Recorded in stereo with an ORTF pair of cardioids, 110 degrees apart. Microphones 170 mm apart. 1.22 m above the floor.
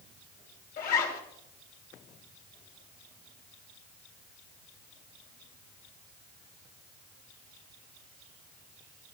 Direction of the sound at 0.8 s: 65° left.